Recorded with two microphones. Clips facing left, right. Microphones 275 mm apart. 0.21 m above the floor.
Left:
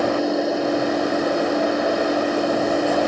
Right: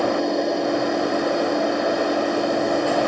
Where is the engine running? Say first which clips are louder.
Left 1 dB; centre (ahead or behind), 1.8 m.